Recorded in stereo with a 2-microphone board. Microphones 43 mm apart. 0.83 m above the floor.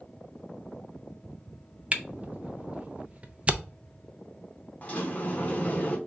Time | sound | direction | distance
1.9 | a camera shutter | 30° right (ahead or behind) | 0.5 m
4.8 | a sliding door | 35° left (ahead or behind) | 1.0 m